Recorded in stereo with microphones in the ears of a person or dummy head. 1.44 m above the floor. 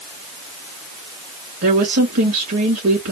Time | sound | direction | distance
1.6 | a woman speaking | 55° right (ahead or behind) | 2 m